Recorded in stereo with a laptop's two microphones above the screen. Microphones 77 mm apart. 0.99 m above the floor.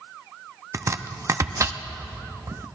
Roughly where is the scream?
I don't hear a scream.